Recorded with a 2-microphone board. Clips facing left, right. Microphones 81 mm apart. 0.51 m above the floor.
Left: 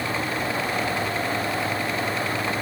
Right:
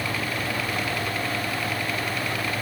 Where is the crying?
No crying in this recording.